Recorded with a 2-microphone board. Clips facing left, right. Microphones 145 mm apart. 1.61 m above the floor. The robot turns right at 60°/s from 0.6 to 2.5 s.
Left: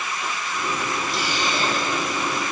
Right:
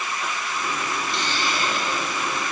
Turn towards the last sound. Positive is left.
turn(degrees=85)